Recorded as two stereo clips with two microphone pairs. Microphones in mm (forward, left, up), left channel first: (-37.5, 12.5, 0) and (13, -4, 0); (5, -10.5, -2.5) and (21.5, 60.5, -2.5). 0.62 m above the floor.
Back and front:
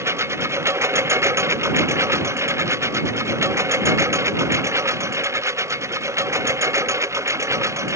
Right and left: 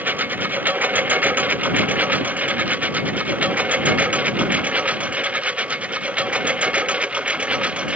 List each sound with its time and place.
0.0 s a lawn mower: 10° left; by 8.0 s 5° left